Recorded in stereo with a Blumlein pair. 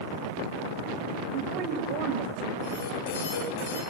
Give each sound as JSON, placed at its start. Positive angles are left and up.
{"t": 1.3, "sound": "a woman speaking", "azimuth_deg": -45, "distance_m": 5.5}
{"t": 2.6, "sound": "an alarm", "azimuth_deg": 55, "distance_m": 8.0}